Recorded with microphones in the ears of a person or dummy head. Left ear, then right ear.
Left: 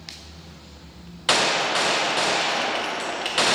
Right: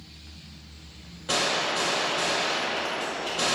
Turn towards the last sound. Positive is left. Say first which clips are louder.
# left 5 dB
turn(degrees=25)  # may be behind; listen again after turning